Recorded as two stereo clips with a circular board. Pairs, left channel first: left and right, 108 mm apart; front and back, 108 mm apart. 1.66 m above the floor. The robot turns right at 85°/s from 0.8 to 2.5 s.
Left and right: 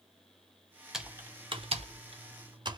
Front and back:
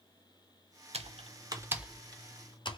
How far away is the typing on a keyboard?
About 0.6 m.